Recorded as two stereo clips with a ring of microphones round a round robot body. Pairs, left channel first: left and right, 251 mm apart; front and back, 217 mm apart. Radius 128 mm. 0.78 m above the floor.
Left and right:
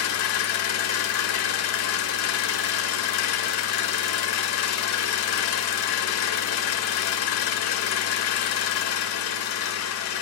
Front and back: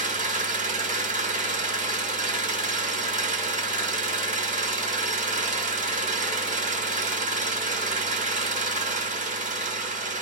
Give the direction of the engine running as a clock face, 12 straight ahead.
8 o'clock.